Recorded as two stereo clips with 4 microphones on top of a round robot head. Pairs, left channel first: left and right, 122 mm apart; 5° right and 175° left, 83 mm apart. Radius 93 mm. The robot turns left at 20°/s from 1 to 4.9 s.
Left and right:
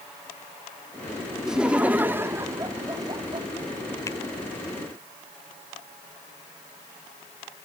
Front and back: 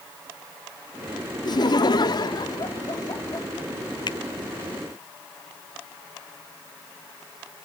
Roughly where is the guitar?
I don't hear a guitar.